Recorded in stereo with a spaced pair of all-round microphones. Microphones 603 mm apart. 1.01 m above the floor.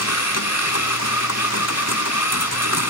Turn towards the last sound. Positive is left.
turn(degrees=25)  # may be behind; listen again after turning